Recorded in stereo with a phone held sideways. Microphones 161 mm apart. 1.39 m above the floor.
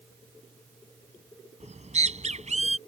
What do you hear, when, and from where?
1.6 s a bird: 45° right (ahead or behind)